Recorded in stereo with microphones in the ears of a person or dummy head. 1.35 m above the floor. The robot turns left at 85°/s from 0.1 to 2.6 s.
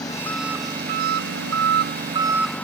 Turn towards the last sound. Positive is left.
turn(degrees=165)